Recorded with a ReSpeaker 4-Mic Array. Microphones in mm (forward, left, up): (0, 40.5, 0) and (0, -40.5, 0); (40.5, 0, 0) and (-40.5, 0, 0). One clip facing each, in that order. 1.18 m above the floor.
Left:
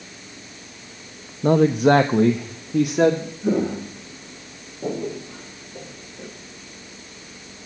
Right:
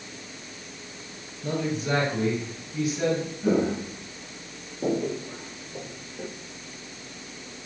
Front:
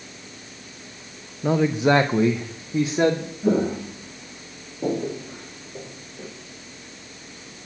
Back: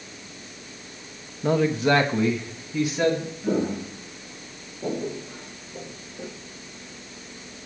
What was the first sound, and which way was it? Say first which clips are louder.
A man speaking: left 13 dB, front 1 dB; 85° left.